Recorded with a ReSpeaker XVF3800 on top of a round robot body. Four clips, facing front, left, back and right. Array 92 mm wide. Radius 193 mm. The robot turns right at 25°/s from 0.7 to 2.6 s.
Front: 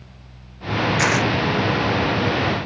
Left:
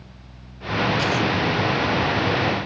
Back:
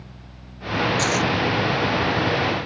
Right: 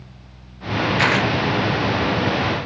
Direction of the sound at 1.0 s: 65° right.